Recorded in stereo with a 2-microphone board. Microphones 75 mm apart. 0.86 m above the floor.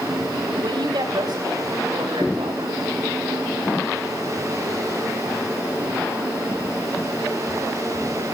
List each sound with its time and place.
0.5 s a woman speaking: 70° right (ahead or behind), 5.5 m; by 2.9 s 80° right, 7 m